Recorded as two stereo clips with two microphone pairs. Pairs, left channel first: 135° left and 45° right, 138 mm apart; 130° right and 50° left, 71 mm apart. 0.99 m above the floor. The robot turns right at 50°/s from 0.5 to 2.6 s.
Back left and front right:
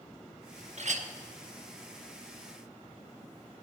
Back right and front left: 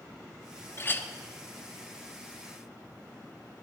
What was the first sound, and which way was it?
A clink, 80° right.